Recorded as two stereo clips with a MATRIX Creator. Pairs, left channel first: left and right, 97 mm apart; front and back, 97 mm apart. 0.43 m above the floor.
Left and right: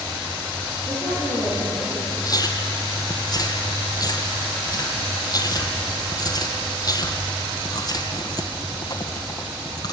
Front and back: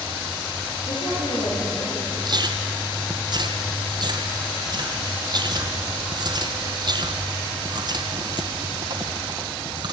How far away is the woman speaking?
About 9 m.